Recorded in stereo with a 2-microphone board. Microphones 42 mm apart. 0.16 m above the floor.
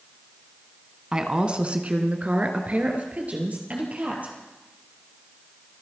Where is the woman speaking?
20° right (ahead or behind), 1.2 m; by 4.3 s 40° right (ahead or behind), 4 m.